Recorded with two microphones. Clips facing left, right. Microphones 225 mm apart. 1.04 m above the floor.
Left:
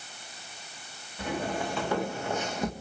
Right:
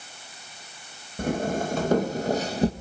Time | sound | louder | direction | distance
1.2 | footsteps | right 6 dB | 45° right (ahead or behind) | 2 m